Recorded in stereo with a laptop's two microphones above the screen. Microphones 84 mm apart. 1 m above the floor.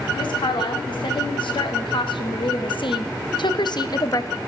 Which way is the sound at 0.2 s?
75° left (ahead or behind).